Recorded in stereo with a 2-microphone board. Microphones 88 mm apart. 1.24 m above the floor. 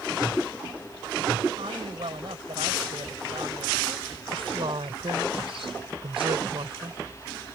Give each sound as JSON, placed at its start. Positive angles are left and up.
{"t": 1.6, "sound": "a woman speaking", "side_deg": -85}
{"t": 4.3, "sound": "a woman speaking", "side_deg": -80}